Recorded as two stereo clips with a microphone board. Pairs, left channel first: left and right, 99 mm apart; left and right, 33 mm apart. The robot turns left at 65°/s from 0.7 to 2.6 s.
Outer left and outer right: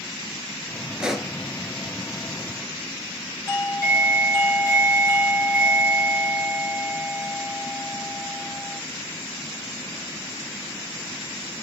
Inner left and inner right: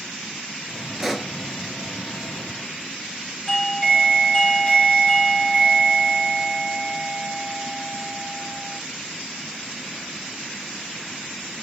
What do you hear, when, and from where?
1.0 s a pop: 10° right (ahead or behind), 0.7 m; by 1.3 s 5° left (ahead or behind), 0.7 m
3.5 s a doorbell: 30° left (ahead or behind), 2.5 m